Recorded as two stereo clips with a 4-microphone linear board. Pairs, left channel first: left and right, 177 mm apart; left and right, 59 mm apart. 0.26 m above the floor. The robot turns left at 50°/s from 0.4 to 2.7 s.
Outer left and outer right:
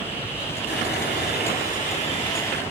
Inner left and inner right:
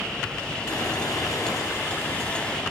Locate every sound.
0.7 s sawing: 105° left, 4.5 m; by 2.6 s 10° left, 4.5 m